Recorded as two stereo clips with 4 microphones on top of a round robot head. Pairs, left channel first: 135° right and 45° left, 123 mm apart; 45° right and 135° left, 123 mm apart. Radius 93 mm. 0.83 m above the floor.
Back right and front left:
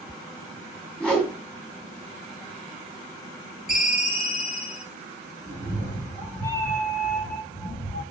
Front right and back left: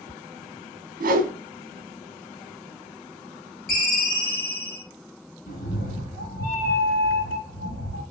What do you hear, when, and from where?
1.0 s a whoosh: 140° left, 0.9 m
3.7 s a ringtone: 45° right, 3 m
5.5 s a cat meowing: 65° right, 1.3 m